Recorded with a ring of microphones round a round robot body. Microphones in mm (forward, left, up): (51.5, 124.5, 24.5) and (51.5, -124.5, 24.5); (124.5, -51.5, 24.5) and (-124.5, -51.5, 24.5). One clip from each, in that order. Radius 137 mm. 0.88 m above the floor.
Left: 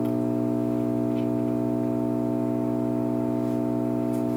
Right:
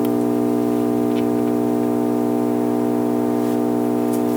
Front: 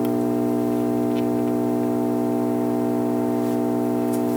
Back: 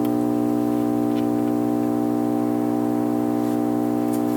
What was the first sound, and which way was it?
An engine running, 85° right.